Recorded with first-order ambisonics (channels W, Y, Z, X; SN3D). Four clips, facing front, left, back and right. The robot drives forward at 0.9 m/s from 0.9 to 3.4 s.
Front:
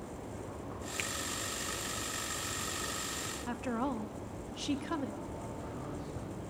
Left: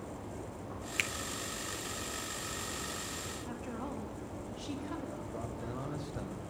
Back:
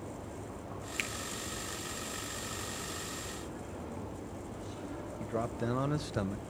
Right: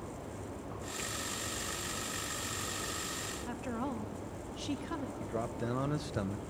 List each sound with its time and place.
1.0 s a finger snap: 105° left, 0.8 m; by 1.1 s 110° left, 0.9 m
3.5 s a woman speaking: 20° right, 2.5 m
5.2 s a man speaking: 150° right, 1.4 m